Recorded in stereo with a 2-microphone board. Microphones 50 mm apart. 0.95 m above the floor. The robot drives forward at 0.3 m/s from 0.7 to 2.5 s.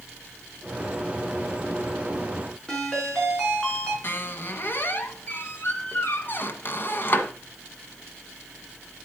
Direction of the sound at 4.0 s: 45° left (ahead or behind).